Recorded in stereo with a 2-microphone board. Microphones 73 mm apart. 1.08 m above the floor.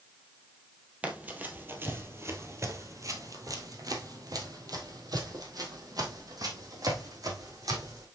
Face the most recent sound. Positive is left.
turn(degrees=-55)  # may be behind; listen again after turning